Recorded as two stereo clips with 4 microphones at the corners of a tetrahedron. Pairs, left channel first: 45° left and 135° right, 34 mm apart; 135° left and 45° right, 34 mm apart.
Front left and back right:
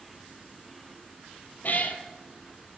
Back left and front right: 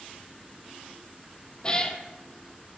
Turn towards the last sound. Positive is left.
turn(degrees=70)